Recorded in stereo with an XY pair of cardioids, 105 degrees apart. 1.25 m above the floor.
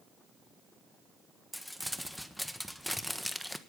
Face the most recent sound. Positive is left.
turn(degrees=5)